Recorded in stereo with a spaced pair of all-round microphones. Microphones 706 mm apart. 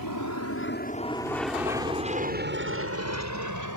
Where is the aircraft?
30° left (ahead or behind); by 3.8 s 30° right (ahead or behind).